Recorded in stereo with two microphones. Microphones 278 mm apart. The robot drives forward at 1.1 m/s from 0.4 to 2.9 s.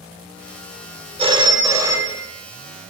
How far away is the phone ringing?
About 0.9 m.